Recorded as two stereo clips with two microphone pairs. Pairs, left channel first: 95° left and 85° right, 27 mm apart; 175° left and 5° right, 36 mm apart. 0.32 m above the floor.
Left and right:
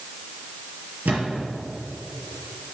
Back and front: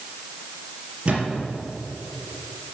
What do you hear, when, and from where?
1.1 s a thud: 65° right, 4 m